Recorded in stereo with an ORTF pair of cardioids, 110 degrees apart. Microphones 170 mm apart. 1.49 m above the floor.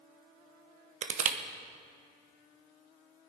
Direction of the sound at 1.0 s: 45° right.